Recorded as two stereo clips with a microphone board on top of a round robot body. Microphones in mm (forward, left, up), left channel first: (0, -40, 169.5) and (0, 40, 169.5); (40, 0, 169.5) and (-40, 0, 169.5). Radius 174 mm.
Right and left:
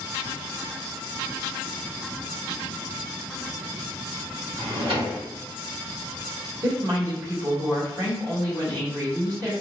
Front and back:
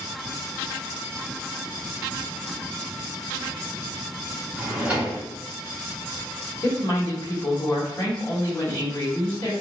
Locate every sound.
4.5 s a drawer: 100° left, 1.0 m
6.6 s a woman speaking: 50° left, 1.9 m